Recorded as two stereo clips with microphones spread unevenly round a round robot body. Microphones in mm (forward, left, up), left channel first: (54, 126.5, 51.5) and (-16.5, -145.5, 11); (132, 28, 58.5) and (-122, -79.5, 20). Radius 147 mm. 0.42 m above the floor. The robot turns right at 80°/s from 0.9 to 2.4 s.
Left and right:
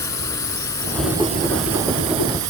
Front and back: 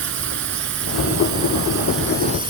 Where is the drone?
155° left; by 2.5 s 85° right.